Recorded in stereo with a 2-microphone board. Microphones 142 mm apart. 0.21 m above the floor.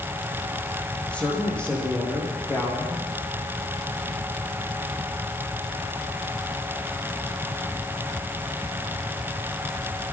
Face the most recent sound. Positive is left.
turn(degrees=10)  # may be behind; listen again after turning